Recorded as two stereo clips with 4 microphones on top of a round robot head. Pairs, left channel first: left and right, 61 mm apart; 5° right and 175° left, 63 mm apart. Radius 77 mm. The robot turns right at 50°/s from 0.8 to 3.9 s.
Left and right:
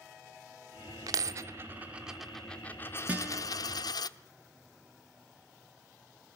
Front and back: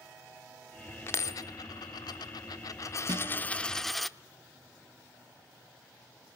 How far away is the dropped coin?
About 0.9 m.